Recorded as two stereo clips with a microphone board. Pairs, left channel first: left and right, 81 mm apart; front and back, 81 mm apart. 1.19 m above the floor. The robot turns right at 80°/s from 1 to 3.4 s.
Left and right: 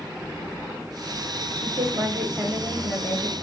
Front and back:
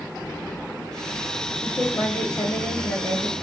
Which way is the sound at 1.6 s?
75° right.